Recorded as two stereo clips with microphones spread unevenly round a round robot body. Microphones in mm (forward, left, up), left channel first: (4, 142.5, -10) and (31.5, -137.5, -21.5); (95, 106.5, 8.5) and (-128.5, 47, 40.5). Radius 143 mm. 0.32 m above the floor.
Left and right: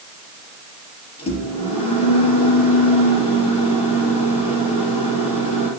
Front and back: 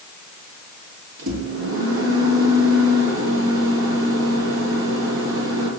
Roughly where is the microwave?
Behind.